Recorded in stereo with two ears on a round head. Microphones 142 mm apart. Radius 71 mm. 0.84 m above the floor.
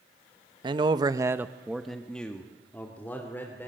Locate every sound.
0.6 s a man speaking: 30° right (ahead or behind), 1.0 m; by 3.7 s 15° left (ahead or behind), 3.5 m